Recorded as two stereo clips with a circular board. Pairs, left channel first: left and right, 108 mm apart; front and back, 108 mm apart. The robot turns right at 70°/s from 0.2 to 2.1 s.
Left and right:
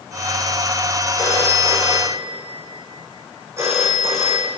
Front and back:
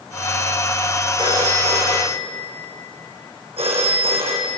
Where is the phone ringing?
140° left, 4 m; by 4.5 s 155° right, 4 m.